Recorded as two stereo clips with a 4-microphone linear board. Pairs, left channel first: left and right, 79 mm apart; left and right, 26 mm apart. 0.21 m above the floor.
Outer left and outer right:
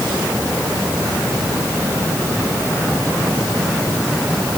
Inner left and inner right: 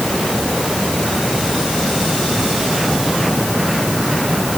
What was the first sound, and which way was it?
Only background noise.